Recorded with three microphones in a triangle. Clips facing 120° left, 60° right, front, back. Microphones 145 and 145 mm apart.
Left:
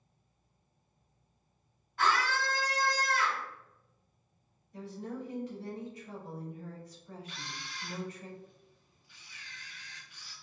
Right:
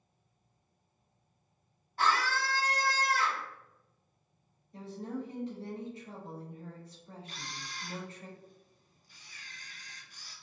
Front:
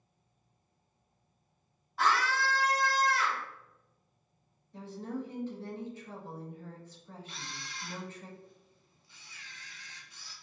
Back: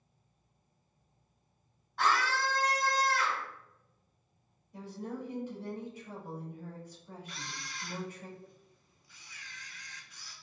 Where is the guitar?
No guitar in this recording.